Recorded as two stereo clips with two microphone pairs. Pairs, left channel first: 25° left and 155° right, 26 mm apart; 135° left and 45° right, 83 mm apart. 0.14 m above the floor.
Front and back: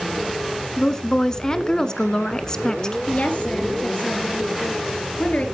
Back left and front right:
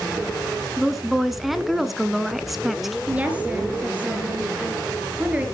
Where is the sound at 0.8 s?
35° left, 1.1 m.